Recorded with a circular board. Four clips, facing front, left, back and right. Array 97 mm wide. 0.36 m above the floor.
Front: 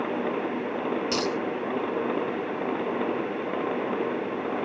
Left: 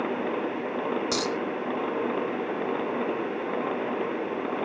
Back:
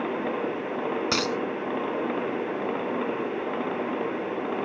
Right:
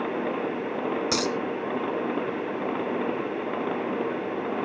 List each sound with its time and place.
1.1 s a dropped coin: 170° right, 1.3 m